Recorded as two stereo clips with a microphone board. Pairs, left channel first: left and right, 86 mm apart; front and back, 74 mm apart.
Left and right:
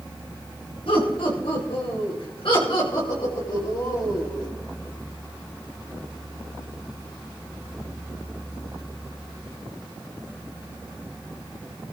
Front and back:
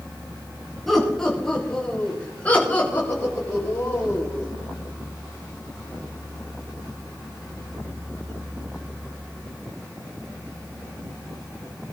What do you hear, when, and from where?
0.9 s laughter: 85° left, 6.5 m; by 4.5 s 55° left, 8 m